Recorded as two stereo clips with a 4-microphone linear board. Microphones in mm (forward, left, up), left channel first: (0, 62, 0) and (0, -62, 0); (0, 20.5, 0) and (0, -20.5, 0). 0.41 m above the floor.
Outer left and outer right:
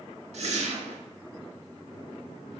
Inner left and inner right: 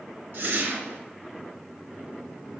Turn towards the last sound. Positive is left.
turn(degrees=-60)  # may be behind; listen again after turning